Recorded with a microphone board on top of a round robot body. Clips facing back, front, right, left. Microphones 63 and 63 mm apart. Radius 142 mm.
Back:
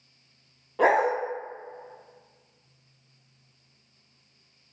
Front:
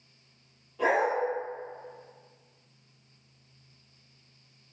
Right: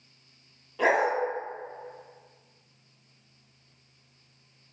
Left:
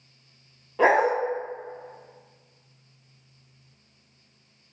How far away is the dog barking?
About 0.7 m.